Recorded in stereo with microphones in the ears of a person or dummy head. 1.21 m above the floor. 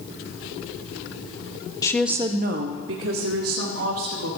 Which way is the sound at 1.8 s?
15° left (ahead or behind).